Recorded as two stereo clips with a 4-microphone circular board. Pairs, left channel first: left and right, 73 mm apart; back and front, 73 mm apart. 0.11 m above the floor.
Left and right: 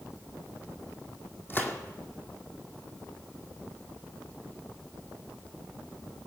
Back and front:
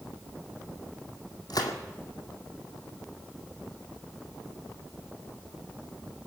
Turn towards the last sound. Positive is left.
turn(degrees=150)